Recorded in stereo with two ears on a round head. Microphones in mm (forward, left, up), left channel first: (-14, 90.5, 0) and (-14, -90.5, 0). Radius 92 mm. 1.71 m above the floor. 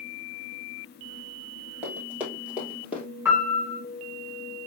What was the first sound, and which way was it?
Running footsteps, 5° right (ahead or behind).